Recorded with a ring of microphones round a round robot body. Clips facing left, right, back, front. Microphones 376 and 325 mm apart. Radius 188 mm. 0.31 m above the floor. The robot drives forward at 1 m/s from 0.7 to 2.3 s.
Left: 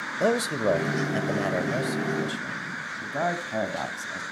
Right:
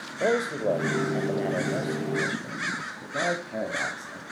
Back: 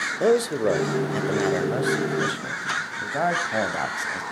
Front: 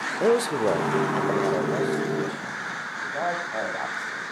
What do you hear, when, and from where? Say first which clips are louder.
0.2 s a man speaking: left 1 dB, back 1 dB; 80° left, 1.2 m; by 4.2 s 155° left, 1.9 m